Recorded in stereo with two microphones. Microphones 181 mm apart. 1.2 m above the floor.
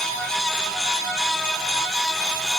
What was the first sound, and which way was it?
Only background noise.